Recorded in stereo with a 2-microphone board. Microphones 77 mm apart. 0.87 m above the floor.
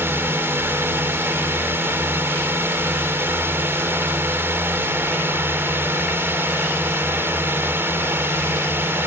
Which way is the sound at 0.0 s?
30° right (ahead or behind).